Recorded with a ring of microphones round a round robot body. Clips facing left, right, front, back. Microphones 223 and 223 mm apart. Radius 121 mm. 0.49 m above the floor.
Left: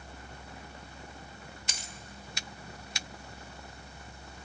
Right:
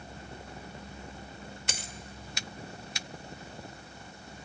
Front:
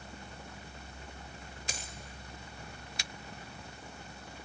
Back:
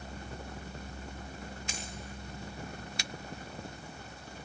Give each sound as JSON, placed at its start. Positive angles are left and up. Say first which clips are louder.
{"t": 1.7, "sound": "a dropped coin", "louder": "right 5 dB, back 3 dB", "azimuth_deg": -60, "distance_m": 0.9}